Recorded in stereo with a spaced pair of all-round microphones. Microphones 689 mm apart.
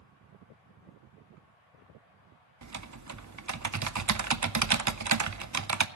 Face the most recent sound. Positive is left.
turn(degrees=-30)  # may be behind; listen again after turning